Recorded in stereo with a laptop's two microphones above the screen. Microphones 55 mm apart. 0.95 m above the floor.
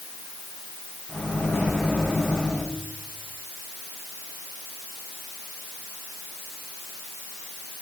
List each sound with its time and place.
1.1 s a microwave: 10° right (ahead or behind), 8 m